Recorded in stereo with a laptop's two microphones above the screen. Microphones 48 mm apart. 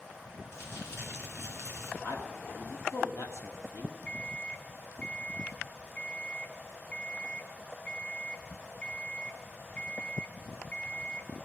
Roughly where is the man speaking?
Left.